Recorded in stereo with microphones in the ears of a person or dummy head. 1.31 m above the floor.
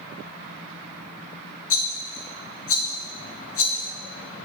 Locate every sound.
1.7 s a rattle: 80° left, 1.3 m